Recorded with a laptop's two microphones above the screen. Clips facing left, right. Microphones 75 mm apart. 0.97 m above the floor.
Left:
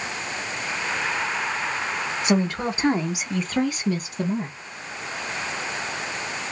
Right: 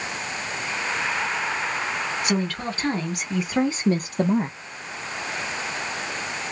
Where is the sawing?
No sawing in this recording.